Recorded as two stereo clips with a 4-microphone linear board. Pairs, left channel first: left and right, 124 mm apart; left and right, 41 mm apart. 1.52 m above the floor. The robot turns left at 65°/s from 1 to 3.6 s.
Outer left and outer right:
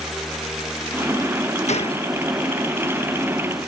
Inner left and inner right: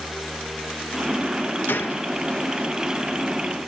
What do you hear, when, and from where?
1.7 s a gunshot: 65° left (ahead or behind); by 2.1 s 40° left (ahead or behind)